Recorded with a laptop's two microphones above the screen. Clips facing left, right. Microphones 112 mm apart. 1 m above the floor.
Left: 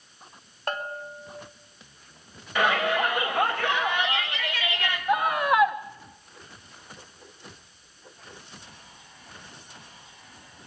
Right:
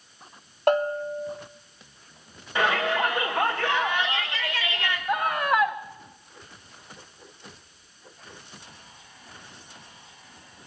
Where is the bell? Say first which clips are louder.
Right 11 dB; 75° right (ahead or behind), 3 m.